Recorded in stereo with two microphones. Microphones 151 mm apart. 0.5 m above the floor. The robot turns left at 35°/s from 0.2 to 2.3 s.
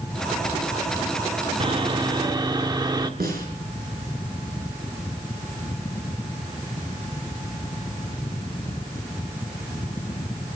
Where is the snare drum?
80° right, 5 m.